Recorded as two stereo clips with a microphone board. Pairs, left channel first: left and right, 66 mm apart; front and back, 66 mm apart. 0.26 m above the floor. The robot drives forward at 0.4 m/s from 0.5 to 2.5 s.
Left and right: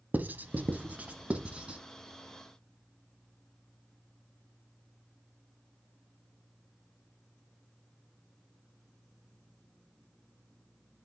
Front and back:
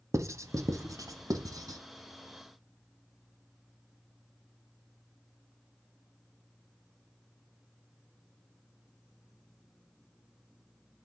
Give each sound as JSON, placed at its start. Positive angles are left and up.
{"t": 0.1, "sound": "writing", "azimuth_deg": -150, "distance_m": 0.7}